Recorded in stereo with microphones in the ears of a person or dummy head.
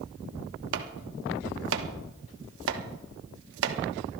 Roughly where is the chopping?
Right.